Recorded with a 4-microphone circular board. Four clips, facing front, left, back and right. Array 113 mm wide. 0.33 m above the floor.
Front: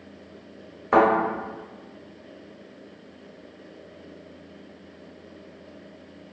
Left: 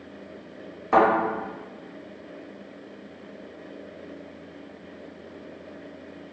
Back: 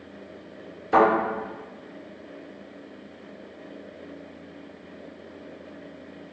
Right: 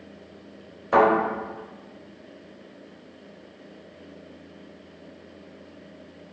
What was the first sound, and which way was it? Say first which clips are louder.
A thud: even, even; 5° left.